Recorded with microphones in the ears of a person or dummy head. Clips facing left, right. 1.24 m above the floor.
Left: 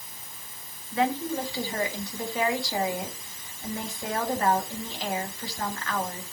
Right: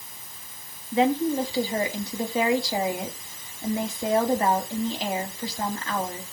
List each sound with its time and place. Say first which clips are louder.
0.9 s a woman speaking: right 5 dB; 15° right (ahead or behind), 2.0 m